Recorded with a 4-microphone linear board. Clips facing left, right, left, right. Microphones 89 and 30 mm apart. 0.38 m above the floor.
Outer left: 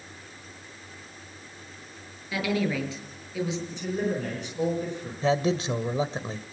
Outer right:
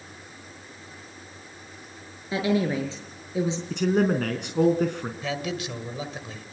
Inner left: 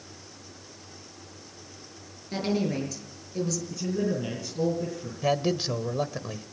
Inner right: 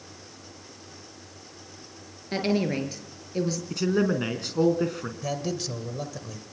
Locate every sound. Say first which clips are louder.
2.3 s a woman speaking: outer right 3 dB, inner right 2 dB; 30° right (ahead or behind), 6.5 m
3.7 s a man speaking: outer right 11 dB, inner right 7 dB; 70° right (ahead or behind), 4.5 m
5.2 s a man speaking: outer left 8 dB, inner left 6 dB; 30° left (ahead or behind), 1.9 m